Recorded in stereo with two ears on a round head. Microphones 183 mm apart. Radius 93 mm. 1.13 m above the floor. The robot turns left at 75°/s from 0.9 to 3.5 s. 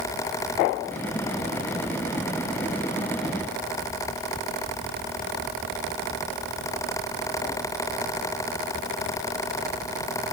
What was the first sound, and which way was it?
Only background noise.